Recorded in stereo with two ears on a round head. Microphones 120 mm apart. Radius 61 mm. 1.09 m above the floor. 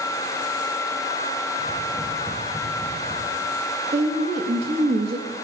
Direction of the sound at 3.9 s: 45° right (ahead or behind).